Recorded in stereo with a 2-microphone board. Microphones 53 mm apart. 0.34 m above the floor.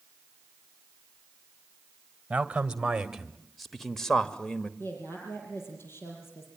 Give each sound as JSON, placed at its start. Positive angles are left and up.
{"t": 2.3, "sound": "a man speaking", "side_deg": -25, "distance_m": 1.7}
{"t": 4.8, "sound": "a woman speaking", "side_deg": 55, "distance_m": 7.0}